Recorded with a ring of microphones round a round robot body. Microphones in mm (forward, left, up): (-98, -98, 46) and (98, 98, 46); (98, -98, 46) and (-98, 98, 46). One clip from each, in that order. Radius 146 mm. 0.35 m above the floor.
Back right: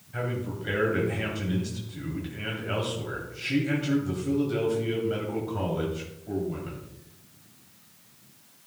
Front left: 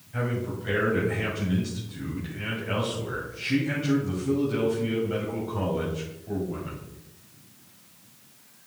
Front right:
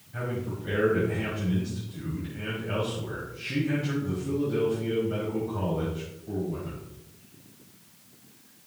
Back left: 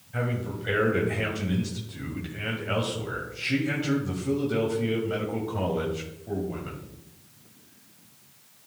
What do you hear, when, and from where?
0.1 s a man speaking: 155° left, 2 m